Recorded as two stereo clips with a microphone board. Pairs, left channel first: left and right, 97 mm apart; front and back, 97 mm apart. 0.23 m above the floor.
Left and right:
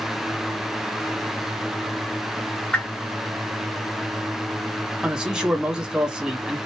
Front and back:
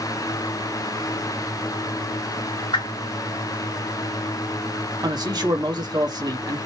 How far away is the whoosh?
About 2 m.